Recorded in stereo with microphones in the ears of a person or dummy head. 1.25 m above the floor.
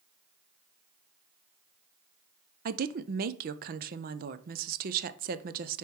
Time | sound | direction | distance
2.6 | a woman speaking | 40° right (ahead or behind) | 0.5 m